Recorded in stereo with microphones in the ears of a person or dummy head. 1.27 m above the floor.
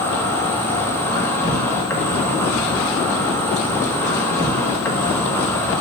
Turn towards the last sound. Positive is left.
turn(degrees=15)  # may be behind; listen again after turning